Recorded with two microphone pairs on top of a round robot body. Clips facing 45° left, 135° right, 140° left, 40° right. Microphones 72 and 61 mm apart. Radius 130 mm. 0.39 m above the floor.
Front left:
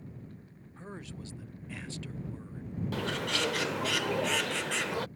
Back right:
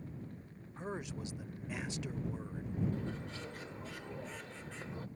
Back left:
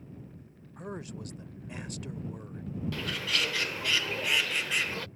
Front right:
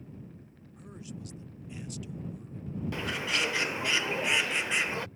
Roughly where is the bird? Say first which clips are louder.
Front left 9 dB, front right 2 dB; ahead left.